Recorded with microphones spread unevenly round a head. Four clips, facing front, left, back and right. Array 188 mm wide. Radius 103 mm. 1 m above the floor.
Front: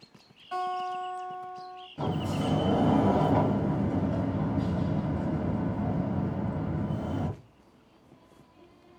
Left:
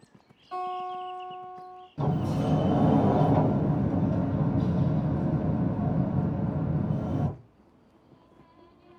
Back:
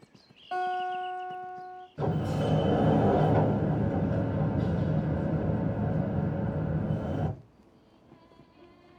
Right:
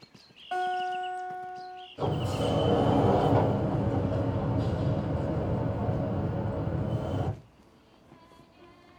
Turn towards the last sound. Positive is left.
turn(degrees=115)